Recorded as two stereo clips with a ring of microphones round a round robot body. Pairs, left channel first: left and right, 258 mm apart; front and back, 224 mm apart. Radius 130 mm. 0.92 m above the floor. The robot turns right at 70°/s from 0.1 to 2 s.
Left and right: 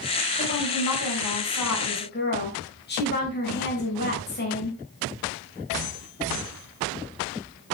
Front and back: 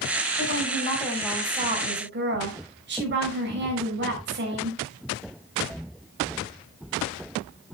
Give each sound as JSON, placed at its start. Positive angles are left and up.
{"t": 0.4, "sound": "a woman speaking", "azimuth_deg": 30, "distance_m": 6.0}